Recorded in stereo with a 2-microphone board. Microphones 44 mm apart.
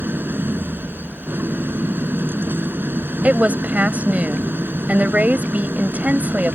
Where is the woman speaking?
35° right (ahead or behind).